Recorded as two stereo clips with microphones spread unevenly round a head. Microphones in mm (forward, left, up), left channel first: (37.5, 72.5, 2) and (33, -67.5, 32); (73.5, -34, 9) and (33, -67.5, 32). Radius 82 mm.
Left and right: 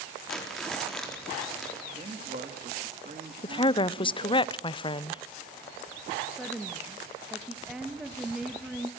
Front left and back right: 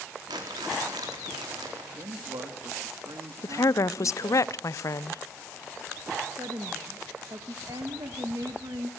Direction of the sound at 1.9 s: 140° right.